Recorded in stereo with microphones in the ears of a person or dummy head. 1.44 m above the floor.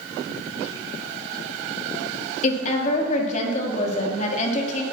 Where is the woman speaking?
45° left (ahead or behind), 3 m.